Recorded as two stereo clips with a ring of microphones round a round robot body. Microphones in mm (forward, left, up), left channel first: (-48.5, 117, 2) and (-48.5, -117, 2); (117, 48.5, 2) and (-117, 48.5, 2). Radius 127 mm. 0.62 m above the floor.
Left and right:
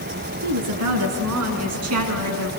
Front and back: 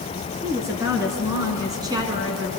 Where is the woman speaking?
100° right, 7 m; by 2.5 s 105° right, 5 m.